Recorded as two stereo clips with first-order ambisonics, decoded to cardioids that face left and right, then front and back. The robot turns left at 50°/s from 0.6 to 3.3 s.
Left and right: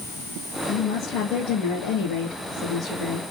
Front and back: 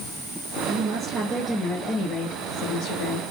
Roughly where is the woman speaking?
Behind left.